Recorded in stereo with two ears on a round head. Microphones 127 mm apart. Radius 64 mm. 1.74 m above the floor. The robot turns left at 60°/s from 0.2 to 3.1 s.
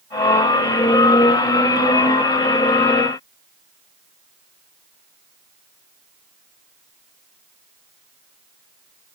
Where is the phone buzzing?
I don't hear a phone buzzing.